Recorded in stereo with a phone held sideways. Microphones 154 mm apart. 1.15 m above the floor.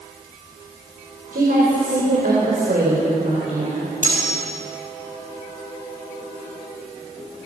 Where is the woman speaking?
75° right (ahead or behind), 4.5 m; by 3.9 s 45° right (ahead or behind), 5 m.